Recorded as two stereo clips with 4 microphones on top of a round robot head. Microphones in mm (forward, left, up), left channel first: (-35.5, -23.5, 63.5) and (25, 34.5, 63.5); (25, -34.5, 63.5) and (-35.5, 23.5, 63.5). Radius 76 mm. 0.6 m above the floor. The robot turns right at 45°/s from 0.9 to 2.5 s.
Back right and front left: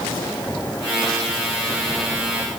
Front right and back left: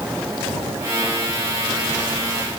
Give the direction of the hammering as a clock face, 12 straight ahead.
No hammering in this recording.